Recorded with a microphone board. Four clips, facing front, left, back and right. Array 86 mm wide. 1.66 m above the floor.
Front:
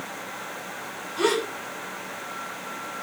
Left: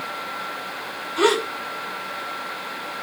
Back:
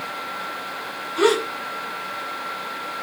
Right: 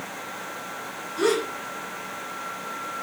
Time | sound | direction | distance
1.2 | a gasp | 125° left | 4.5 m